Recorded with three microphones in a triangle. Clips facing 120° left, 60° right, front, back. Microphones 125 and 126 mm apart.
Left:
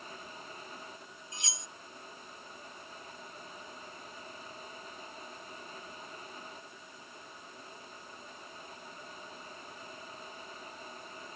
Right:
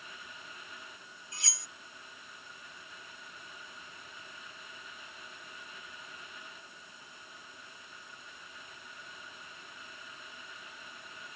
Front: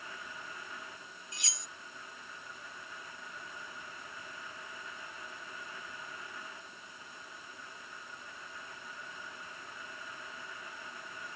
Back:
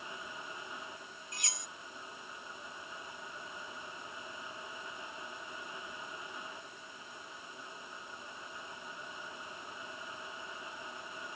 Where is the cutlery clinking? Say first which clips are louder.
Left 2 dB, back 4 dB; straight behind.